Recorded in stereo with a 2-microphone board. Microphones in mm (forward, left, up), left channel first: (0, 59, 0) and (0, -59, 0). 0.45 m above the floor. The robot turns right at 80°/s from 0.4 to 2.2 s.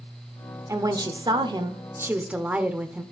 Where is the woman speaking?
140° right, 0.9 m; by 3.0 s 20° right, 0.9 m.